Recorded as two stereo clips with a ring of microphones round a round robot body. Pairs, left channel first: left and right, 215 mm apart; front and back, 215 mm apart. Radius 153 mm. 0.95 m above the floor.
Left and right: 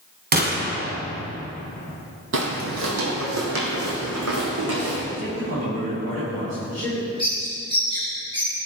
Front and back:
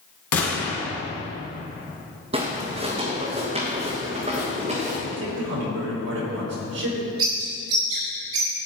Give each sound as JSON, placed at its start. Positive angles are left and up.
{"t": 0.3, "sound": "a gunshot", "azimuth_deg": -45, "distance_m": 3.0}
{"t": 2.3, "sound": "footsteps", "azimuth_deg": -115, "distance_m": 1.6}
{"t": 5.1, "sound": "a man speaking", "azimuth_deg": -155, "distance_m": 4.0}
{"t": 7.2, "sound": "a bird", "azimuth_deg": -165, "distance_m": 5.0}